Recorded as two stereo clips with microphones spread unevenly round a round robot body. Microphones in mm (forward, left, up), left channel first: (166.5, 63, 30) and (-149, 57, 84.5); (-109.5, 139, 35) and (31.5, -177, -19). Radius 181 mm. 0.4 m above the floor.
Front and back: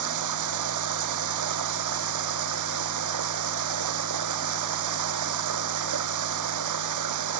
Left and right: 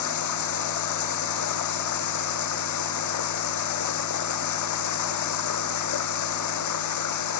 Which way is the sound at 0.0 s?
150° left.